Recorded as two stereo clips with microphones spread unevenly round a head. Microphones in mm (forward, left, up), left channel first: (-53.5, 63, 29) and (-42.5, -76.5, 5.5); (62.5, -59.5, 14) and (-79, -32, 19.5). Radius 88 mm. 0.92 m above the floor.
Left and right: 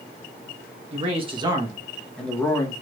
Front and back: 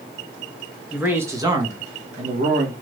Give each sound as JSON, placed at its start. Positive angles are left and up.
{"t": 0.9, "sound": "a man speaking", "azimuth_deg": -110, "distance_m": 1.3}